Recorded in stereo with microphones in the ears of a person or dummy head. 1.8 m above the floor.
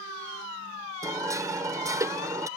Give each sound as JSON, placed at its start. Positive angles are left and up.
{"t": 1.0, "sound": "hammering", "side_deg": -15}